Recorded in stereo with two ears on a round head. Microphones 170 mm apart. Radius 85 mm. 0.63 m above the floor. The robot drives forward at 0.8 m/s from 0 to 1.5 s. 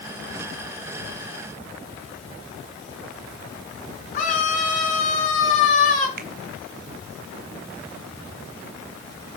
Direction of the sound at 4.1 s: 40° left (ahead or behind).